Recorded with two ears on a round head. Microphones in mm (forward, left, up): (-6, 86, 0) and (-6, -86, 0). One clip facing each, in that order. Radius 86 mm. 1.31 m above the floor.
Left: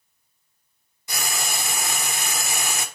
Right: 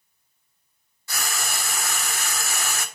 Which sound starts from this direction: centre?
Frying, at 1.1 s.